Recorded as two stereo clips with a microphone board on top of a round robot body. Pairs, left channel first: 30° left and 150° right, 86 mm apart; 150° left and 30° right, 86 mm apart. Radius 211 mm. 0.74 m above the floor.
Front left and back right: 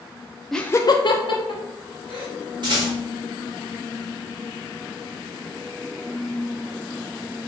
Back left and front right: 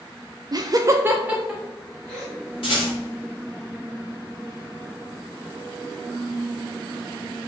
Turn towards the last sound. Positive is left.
turn(degrees=175)